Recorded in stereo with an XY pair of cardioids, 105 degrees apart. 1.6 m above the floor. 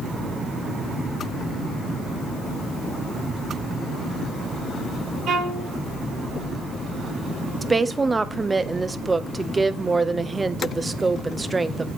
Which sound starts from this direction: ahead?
A woman speaking, at 7.6 s.